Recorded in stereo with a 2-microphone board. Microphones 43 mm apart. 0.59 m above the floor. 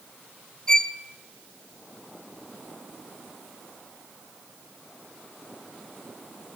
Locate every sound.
0.7 s a violin: 15° left (ahead or behind), 0.5 m